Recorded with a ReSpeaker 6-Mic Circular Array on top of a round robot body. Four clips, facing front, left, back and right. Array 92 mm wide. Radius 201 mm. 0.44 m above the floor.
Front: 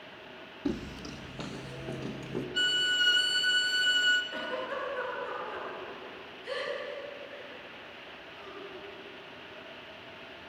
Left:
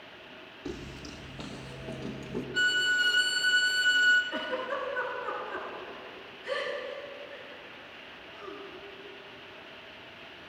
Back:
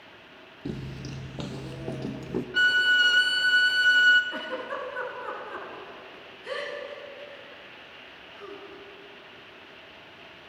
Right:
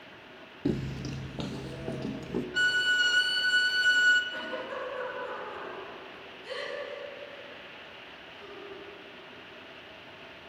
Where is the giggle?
160° left, 8.5 m.